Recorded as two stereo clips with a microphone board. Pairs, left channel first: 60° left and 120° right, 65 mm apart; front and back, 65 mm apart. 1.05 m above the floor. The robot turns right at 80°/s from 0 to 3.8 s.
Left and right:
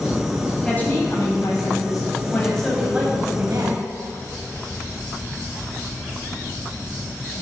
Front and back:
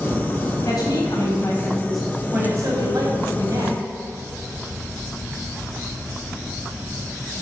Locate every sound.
0.6 s a woman speaking: 20° right, 6 m; by 3.8 s 125° right, 6 m